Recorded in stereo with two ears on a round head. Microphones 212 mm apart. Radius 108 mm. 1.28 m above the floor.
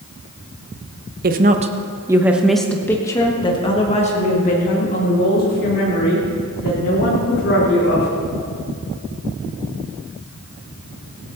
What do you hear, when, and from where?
1.2 s a woman speaking: 40° right (ahead or behind), 1.0 m; by 8.1 s 45° left (ahead or behind), 3.5 m